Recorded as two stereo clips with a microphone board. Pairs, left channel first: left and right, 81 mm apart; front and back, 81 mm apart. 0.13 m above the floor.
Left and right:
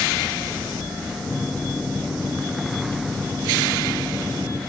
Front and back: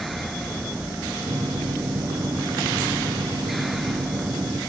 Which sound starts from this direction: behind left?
A microwave, at 1.3 s.